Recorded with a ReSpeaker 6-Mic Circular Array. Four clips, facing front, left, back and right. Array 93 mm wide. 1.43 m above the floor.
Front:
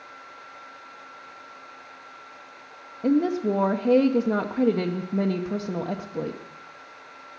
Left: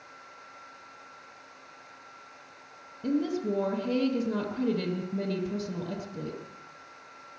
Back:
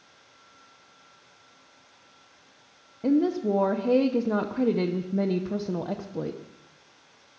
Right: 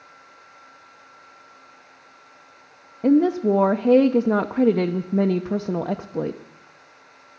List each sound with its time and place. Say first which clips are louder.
3.0 s a woman speaking: right 11 dB, front 1 dB; 85° right, 0.7 m